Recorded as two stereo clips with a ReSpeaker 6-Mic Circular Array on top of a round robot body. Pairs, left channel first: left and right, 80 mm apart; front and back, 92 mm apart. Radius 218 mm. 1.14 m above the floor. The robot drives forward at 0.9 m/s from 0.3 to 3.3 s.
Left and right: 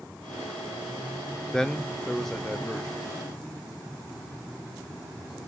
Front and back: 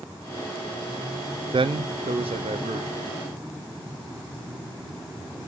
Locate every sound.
1.5 s a man speaking: 170° left, 0.7 m; by 3.2 s straight behind, 2.0 m